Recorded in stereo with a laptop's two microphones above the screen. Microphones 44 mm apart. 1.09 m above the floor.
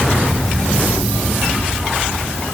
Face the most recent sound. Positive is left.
No sound to turn to.